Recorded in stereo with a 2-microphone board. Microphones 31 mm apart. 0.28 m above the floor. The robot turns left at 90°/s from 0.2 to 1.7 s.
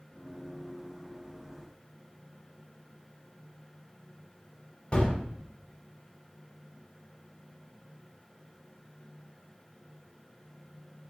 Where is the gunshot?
30° left (ahead or behind), 1.2 m.